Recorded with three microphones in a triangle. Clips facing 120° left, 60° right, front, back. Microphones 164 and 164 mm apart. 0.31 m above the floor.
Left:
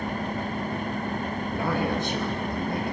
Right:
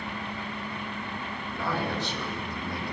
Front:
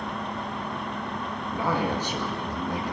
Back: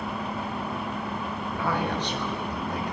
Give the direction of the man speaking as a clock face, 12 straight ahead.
9 o'clock.